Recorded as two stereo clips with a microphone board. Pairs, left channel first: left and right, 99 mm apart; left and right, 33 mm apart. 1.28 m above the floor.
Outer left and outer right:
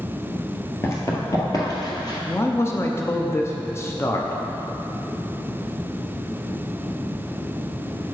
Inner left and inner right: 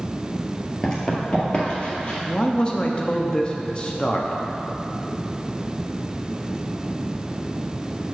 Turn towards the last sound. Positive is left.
turn(degrees=25)  # may be behind; listen again after turning